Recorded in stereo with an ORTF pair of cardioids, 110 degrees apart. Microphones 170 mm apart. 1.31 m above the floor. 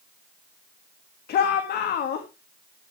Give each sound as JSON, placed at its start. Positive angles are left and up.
{"t": 1.3, "sound": "a shout", "azimuth_deg": 65, "distance_m": 1.7}